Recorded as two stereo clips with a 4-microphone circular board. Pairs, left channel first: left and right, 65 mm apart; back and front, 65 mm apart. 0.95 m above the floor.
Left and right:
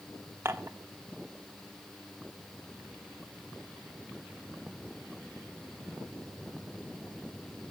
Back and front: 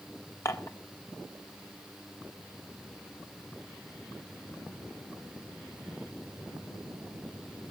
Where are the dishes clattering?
140° right, 1.3 m.